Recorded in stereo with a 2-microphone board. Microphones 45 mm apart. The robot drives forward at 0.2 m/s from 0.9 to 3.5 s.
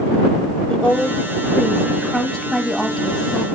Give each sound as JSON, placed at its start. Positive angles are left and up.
{"t": 0.7, "sound": "a woman speaking", "side_deg": 20, "distance_m": 1.0}